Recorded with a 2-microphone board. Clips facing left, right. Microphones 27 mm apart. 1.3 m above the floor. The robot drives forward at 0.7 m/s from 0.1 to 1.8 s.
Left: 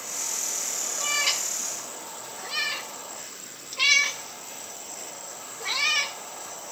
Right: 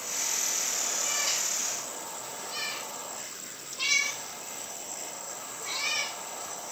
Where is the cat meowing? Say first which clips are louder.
Left 8 dB; 55° left (ahead or behind), 1.4 m; by 6.2 s 45° left (ahead or behind), 1.7 m.